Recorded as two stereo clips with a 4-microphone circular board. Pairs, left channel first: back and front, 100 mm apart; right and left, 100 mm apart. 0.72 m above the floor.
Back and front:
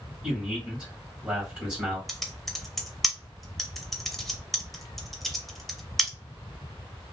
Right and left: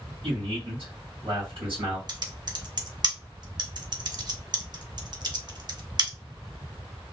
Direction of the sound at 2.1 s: 90° left.